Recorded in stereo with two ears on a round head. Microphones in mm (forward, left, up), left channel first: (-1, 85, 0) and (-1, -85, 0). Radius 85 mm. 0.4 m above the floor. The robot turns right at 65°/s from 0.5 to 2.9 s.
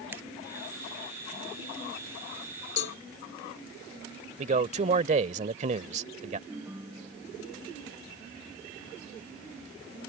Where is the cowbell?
65° left (ahead or behind); by 3.0 s 70° left (ahead or behind).